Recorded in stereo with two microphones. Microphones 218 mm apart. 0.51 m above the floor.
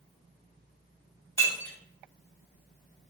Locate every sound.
1.4 s breaking glass: 10° left (ahead or behind), 1.6 m